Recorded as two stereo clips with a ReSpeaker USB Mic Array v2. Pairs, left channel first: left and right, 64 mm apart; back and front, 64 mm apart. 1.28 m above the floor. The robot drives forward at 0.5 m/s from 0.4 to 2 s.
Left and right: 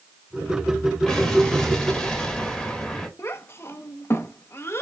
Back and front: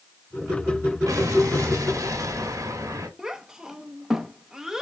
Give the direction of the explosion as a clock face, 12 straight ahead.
12 o'clock.